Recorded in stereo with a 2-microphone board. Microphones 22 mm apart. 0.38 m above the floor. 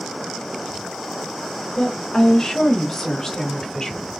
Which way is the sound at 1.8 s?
35° left (ahead or behind).